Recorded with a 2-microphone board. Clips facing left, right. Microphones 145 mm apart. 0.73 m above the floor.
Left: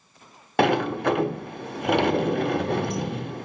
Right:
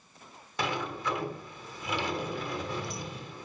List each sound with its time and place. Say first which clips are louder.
0.6 s a sliding door: left 12 dB; 65° left (ahead or behind), 1.0 m